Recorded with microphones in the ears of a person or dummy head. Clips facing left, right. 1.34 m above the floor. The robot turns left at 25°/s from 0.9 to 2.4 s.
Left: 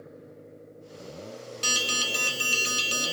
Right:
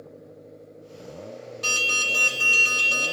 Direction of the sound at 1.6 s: 35° left (ahead or behind).